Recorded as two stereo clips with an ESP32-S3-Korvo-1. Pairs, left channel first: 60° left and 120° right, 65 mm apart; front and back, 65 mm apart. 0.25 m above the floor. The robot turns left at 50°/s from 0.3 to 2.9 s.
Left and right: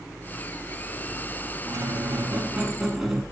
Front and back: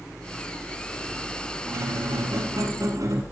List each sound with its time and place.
1.6 s a squeak: 140° right, 1.0 m; by 3.2 s 155° left, 1.0 m